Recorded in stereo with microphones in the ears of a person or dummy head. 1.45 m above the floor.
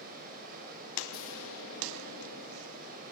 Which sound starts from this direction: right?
Running water, at 0.0 s.